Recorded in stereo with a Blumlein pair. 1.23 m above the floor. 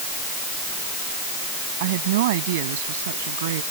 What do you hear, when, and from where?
1.8 s a woman speaking: 50° right; by 3.6 s 60° right